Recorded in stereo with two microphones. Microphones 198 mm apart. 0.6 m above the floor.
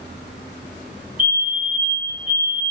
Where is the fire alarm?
45° right (ahead or behind), 3 m.